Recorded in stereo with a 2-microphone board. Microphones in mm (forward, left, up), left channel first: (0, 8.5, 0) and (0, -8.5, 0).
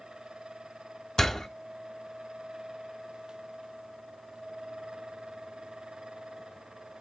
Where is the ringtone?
I don't hear a ringtone.